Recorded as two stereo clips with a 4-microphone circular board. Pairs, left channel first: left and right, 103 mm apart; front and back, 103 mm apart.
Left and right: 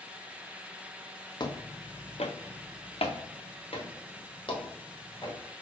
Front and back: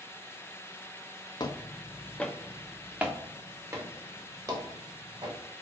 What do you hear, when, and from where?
1.4 s footsteps: 45° left, 0.8 m; by 5.4 s 130° left, 2 m